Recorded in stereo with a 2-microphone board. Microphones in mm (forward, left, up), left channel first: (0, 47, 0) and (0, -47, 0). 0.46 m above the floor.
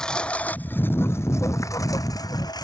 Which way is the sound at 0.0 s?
5° left (ahead or behind).